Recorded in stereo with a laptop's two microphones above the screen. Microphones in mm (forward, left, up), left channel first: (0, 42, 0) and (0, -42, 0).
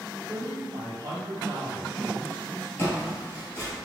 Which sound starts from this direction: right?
A man speaking, at 0.3 s.